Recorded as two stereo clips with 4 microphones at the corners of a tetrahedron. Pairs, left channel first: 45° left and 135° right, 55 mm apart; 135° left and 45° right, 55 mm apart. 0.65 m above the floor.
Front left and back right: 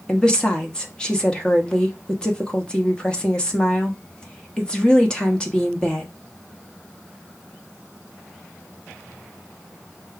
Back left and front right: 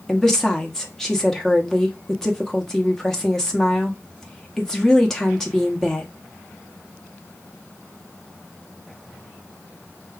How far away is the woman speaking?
About 1.0 m.